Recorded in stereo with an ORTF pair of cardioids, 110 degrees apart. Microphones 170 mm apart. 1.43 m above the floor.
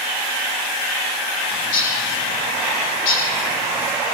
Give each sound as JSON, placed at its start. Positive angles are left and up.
{"t": 1.5, "sound": "a bird", "azimuth_deg": 60, "distance_m": 6.5}